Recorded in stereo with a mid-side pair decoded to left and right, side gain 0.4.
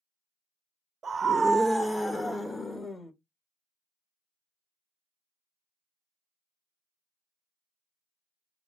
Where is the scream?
50° right, 0.6 m; by 3.1 s 40° left, 1.3 m.